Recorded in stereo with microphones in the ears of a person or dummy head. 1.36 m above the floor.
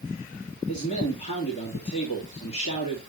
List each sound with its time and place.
0.7 s a man speaking: 40° left (ahead or behind), 2.5 m